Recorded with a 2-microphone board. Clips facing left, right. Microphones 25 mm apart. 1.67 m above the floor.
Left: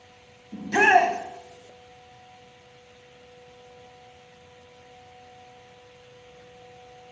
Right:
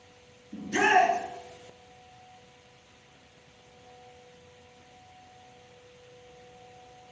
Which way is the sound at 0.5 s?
70° left (ahead or behind).